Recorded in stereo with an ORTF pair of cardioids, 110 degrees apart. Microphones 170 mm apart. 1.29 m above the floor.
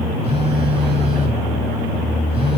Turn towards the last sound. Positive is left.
turn(degrees=-35)